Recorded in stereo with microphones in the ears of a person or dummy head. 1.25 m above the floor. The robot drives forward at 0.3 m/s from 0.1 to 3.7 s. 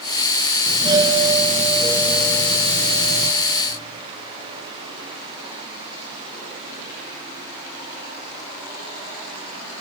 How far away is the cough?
I don't hear a cough.